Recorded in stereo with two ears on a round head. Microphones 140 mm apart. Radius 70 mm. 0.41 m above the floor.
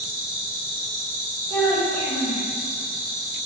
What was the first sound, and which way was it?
An insect, 45° right (ahead or behind).